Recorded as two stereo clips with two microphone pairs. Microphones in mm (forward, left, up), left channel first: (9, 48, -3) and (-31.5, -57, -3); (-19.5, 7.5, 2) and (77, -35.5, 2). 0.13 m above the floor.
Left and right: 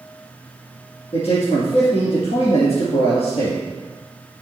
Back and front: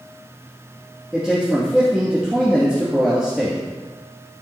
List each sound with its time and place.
1.1 s a man speaking: 65° left, 2.5 m